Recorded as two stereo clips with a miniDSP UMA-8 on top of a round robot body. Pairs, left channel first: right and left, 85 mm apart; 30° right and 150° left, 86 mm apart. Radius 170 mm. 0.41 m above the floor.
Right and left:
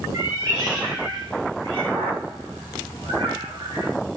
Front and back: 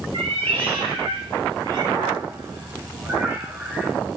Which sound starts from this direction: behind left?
A cat meowing, at 0.1 s.